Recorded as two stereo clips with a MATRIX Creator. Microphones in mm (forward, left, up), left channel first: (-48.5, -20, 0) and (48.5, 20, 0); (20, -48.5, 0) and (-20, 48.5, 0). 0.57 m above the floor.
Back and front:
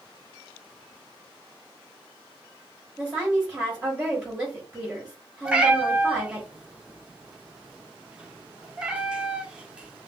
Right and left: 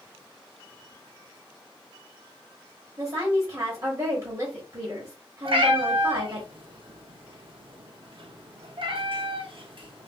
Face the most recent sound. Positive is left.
turn(degrees=100)